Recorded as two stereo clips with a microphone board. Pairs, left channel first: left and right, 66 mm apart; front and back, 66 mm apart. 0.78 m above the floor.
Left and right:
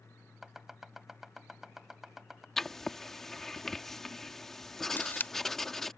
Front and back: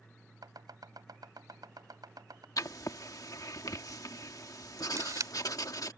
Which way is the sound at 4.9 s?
150° left.